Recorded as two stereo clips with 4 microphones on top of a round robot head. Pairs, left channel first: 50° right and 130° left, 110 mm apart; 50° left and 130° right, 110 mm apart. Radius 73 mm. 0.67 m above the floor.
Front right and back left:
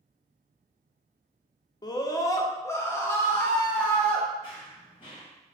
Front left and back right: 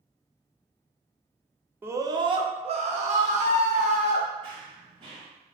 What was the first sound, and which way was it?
A scream, 70° right.